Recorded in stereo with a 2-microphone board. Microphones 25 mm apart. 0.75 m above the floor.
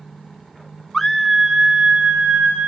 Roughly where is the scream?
Centre.